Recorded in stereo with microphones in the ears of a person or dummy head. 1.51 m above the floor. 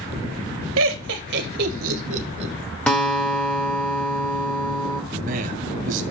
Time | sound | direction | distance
0.8 | laughter | 75° right (ahead or behind) | 1.8 m
2.9 | a guitar | 5° left (ahead or behind) | 1.7 m
5.1 | a man speaking | 45° right (ahead or behind) | 2.5 m